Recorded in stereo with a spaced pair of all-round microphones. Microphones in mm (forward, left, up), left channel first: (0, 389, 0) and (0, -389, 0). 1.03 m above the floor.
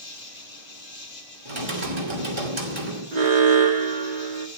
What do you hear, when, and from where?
0.0 s an insect: 60° left (ahead or behind), 1.4 m
1.4 s typing on a keyboard: 35° right (ahead or behind), 2.5 m
3.1 s an alarm: 60° right (ahead or behind), 1.0 m